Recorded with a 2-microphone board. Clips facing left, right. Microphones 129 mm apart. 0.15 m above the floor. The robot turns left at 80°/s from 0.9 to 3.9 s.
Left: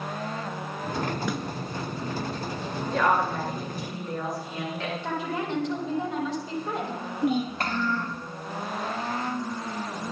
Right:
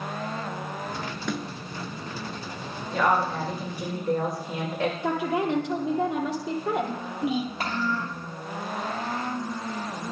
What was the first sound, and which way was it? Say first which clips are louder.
A snare drum: even; 5° left (ahead or behind).